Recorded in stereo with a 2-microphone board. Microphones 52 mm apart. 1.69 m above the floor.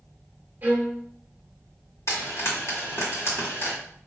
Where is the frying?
60° left (ahead or behind), 2.5 m.